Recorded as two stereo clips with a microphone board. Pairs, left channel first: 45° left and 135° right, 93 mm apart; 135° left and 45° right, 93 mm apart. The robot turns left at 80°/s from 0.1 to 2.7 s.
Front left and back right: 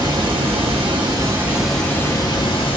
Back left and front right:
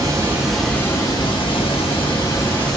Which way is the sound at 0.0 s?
95° right.